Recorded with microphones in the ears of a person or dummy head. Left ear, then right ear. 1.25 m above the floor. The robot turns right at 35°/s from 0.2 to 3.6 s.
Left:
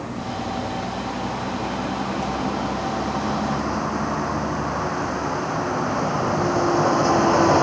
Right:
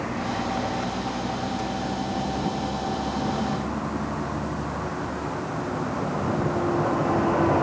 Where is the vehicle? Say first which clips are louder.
Right 1 dB; 15° right; by 7.6 s 105° left.